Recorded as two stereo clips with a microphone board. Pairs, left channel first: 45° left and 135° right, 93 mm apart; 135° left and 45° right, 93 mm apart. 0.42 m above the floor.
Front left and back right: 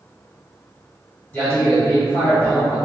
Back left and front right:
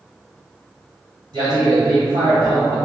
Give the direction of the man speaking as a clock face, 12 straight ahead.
1 o'clock.